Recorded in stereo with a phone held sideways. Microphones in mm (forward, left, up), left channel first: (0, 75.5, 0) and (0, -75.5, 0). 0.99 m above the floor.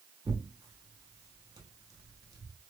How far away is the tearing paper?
About 0.8 m.